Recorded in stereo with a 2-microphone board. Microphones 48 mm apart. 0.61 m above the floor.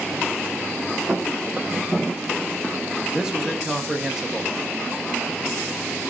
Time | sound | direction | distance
1.1 | footsteps | 25° right (ahead or behind) | 1.1 m
3.1 | a man speaking | 10° right (ahead or behind) | 0.9 m